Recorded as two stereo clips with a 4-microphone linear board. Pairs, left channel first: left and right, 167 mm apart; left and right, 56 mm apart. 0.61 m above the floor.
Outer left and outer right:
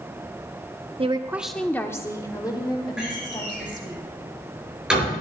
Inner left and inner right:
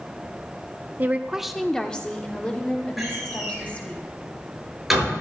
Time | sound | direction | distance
1.0 | a woman speaking | 35° right (ahead or behind) | 0.7 m
3.0 | a door slam | 5° right (ahead or behind) | 8.5 m